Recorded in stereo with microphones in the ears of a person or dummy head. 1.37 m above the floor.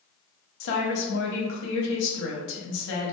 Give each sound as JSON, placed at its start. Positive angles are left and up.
{"t": 0.6, "sound": "a woman speaking", "side_deg": 70, "distance_m": 0.8}